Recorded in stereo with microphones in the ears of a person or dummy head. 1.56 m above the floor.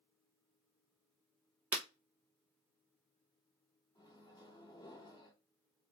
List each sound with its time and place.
1.7 s breaking glass: 10° right (ahead or behind), 1.2 m
4.0 s a microwave: 25° left (ahead or behind), 1.7 m